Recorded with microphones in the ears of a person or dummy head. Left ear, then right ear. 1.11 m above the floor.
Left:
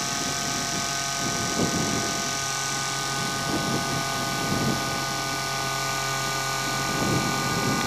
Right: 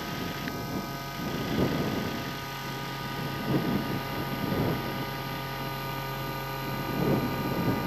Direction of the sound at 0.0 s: 55° left (ahead or behind).